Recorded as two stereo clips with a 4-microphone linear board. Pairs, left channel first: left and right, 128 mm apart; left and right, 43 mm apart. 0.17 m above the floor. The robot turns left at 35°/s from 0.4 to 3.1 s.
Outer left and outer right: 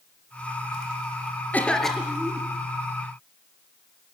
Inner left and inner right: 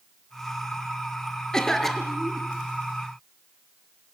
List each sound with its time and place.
1.5 s a cough: 15° left, 3 m; by 2.5 s 15° right, 3 m